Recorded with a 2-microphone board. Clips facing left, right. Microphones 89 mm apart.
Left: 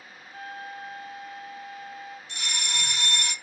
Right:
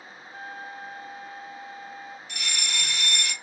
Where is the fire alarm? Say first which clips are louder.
Right 1 dB; 35° left (ahead or behind), 2 m.